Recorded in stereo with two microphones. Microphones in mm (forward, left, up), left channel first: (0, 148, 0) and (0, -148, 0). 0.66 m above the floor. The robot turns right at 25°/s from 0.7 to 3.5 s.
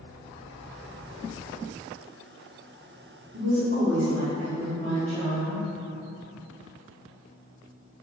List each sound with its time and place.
3.3 s a woman speaking: 45° right (ahead or behind), 1.0 m